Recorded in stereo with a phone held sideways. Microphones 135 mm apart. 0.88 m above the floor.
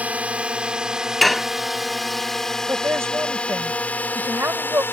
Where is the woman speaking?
20° right (ahead or behind).